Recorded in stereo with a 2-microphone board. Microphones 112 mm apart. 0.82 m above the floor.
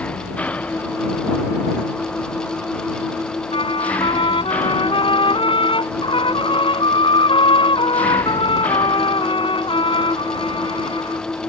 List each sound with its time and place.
0.0 s an engine running: 10° left (ahead or behind)
3.5 s a trumpet: 50° left (ahead or behind)